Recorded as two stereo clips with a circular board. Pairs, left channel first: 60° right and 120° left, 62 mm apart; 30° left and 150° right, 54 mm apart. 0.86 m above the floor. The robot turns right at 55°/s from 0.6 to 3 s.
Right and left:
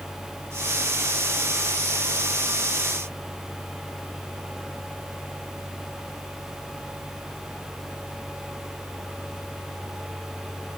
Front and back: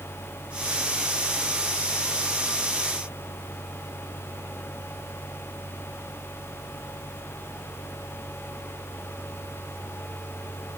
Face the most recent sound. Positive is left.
No sound to turn to.